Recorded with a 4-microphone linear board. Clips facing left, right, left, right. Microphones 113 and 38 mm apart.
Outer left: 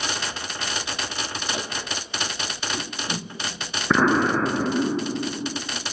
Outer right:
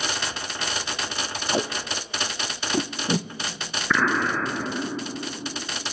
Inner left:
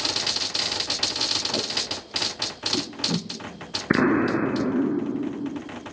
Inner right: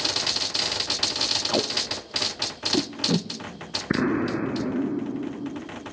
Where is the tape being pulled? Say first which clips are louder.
Outer right 8 dB, inner right 2 dB; 40° right (ahead or behind), 0.8 m.